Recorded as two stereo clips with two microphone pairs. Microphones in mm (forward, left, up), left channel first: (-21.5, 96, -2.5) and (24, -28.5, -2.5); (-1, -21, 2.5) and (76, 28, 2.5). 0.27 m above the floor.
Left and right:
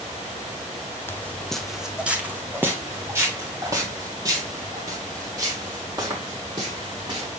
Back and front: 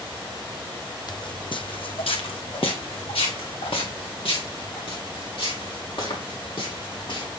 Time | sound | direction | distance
1.1 | footsteps | straight behind | 0.7 m